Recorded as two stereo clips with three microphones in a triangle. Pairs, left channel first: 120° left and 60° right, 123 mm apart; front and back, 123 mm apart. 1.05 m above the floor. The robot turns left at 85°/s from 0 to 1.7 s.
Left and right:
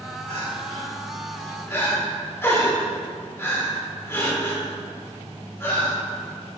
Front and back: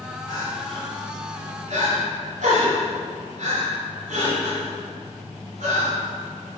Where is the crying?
50° right, 3.5 m; by 6.0 s 170° right, 3.5 m.